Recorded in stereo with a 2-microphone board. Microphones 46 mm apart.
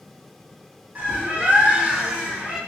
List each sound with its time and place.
0.9 s a bird: 40° right (ahead or behind), 1.9 m